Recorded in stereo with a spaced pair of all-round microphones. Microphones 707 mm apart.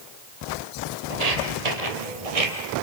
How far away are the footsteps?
About 3 m.